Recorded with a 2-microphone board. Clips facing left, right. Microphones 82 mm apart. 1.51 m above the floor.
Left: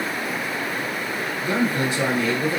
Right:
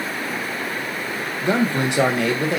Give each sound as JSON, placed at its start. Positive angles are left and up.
{"t": 1.4, "sound": "a man speaking", "side_deg": -75, "distance_m": 1.6}